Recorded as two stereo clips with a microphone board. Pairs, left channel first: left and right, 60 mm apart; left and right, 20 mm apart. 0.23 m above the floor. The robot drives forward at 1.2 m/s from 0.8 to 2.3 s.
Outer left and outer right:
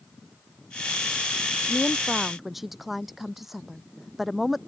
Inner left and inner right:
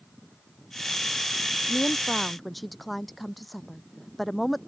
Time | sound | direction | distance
1.7 | a woman speaking | 5° right (ahead or behind) | ?